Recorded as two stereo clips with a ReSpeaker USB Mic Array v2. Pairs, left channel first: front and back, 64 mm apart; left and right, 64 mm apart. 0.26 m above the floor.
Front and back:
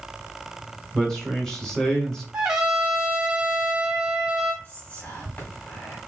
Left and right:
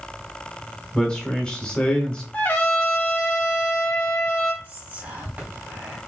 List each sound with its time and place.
0.9 s a man speaking: 70° left, 1.1 m
2.3 s a trumpet: 120° left, 1.0 m
4.6 s whispering: 55° right, 2 m